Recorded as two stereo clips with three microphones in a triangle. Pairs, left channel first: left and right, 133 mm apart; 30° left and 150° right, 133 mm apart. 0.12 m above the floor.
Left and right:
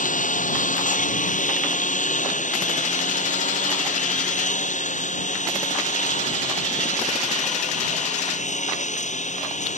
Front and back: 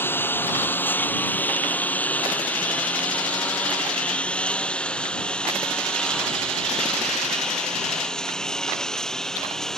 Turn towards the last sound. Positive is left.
turn(degrees=115)